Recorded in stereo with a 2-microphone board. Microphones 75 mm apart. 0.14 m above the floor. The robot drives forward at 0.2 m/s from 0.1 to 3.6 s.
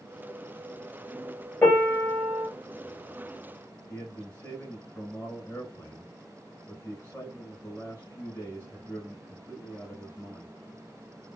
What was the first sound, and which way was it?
A piano, 25° left (ahead or behind).